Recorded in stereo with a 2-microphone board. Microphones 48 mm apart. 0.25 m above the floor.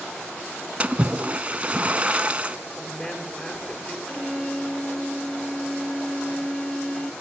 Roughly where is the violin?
Left.